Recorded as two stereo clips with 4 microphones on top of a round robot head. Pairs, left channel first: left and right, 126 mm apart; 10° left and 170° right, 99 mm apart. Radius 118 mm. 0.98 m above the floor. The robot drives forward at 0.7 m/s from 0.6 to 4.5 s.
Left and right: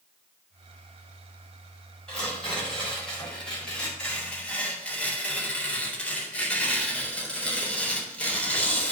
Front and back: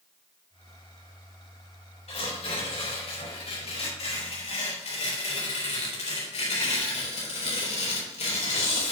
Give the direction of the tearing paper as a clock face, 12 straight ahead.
12 o'clock.